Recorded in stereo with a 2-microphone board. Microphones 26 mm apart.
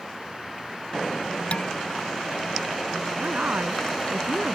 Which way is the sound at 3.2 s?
80° right.